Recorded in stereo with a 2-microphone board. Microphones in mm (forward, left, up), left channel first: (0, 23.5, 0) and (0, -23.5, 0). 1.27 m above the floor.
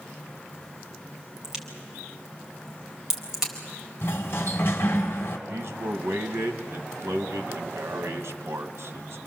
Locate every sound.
1.4 s a crack: 15° right (ahead or behind), 4.5 m
4.0 s a sliding door: 50° left (ahead or behind), 2.5 m
5.5 s a man speaking: 65° right (ahead or behind), 1.4 m